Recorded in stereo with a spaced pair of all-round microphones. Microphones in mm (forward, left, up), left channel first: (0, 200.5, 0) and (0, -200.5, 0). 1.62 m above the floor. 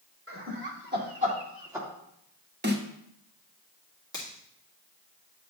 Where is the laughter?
35° right (ahead or behind), 2.5 m; by 1.9 s 5° right (ahead or behind), 1.7 m.